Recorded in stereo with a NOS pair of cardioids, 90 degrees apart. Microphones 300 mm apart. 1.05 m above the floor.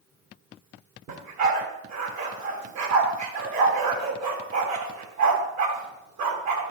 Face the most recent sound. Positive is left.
turn(degrees=-70)